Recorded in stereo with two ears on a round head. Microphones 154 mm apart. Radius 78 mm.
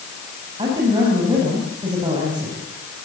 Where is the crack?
No crack in this recording.